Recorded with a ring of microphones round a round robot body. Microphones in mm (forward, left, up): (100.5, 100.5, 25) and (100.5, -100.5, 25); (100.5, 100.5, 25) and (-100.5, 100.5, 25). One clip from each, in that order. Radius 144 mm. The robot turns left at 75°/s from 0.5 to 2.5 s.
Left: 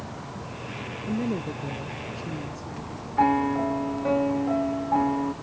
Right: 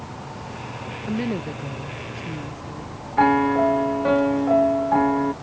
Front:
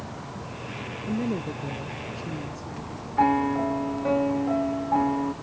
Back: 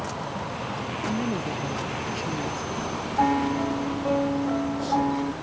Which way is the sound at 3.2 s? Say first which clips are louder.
Right 5 dB, front 2 dB; 75° right.